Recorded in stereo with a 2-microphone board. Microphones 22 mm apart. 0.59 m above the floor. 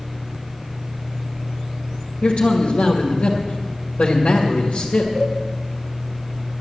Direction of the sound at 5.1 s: 35° right (ahead or behind).